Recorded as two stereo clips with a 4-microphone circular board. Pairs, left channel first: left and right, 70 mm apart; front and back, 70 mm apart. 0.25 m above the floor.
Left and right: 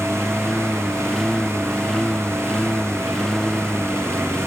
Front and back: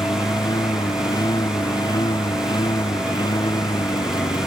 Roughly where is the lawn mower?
Ahead.